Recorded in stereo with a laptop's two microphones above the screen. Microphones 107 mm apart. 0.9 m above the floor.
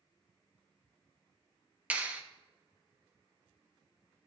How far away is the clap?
About 1.0 m.